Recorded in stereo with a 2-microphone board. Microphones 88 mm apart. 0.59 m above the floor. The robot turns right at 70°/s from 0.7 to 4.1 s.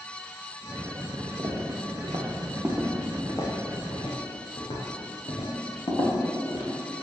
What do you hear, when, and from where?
1.4 s footsteps: 35° right (ahead or behind), 1.6 m; by 6.7 s 55° left (ahead or behind), 3.5 m